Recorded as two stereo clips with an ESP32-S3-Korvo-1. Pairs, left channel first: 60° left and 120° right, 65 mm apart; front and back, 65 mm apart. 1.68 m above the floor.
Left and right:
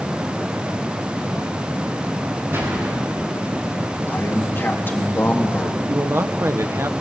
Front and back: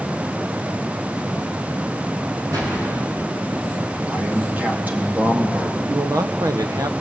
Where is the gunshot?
170° right, 7.5 m.